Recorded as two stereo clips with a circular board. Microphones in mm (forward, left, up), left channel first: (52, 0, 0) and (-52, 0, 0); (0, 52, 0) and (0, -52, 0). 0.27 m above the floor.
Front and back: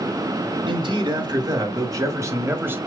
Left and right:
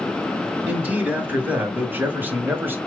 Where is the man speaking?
160° right, 1.9 m; by 2.8 s 135° right, 1.3 m.